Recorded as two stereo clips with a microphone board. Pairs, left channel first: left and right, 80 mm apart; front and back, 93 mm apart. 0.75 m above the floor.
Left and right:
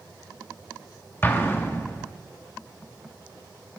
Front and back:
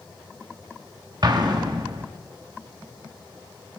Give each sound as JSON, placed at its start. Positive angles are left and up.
{"t": 1.2, "sound": "an explosion", "azimuth_deg": 150, "distance_m": 1.0}